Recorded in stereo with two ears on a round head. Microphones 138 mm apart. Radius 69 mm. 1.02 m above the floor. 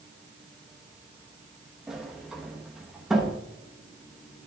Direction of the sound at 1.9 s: 5° right (ahead or behind).